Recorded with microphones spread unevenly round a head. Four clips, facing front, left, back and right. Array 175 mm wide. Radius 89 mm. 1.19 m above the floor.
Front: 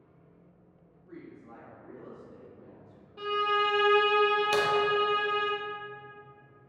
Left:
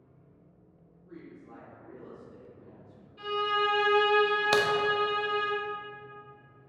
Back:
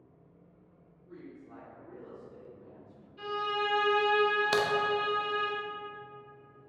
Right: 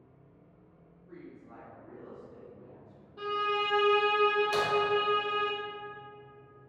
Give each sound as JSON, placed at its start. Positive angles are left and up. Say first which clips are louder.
{"t": 1.0, "sound": "a woman speaking", "louder": "left 1 dB, front 1 dB", "azimuth_deg": 20, "distance_m": 1.1}
{"t": 3.2, "sound": "a violin", "louder": "left 2 dB, front 5 dB", "azimuth_deg": -40, "distance_m": 0.7}
{"t": 4.5, "sound": "a crack", "louder": "left 4 dB, front 1 dB", "azimuth_deg": 105, "distance_m": 0.6}